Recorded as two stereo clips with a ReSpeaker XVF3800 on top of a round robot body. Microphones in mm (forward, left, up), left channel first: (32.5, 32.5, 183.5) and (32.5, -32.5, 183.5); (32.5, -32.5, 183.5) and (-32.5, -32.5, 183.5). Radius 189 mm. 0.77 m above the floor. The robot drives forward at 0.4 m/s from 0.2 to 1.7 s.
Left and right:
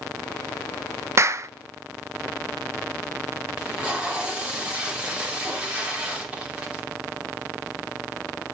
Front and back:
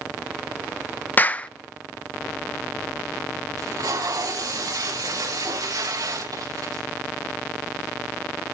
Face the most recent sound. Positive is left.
turn(degrees=-165)